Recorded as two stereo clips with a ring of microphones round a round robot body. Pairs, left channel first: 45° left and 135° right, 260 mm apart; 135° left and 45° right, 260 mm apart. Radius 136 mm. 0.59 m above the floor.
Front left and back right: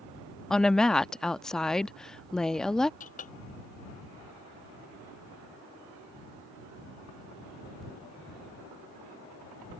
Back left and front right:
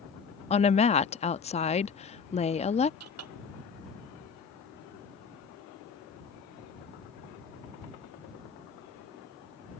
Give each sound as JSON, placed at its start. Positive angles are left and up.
{"t": 0.5, "sound": "a woman speaking", "azimuth_deg": 130}
{"t": 3.0, "sound": "a clink", "azimuth_deg": -15}